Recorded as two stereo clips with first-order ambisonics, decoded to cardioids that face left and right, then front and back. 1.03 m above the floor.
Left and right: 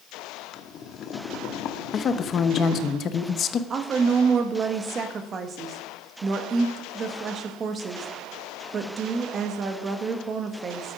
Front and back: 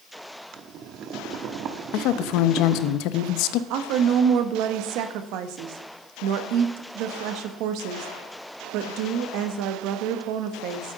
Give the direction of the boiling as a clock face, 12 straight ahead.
7 o'clock.